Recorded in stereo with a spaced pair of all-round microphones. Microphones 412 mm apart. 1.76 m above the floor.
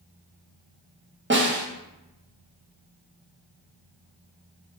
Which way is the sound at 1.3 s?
30° right (ahead or behind).